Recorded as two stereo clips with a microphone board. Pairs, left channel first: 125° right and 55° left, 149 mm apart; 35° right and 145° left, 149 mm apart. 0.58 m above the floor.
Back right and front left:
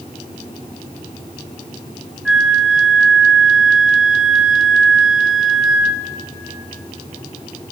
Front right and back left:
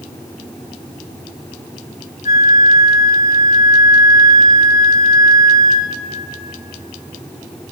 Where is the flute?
30° right, 0.9 m.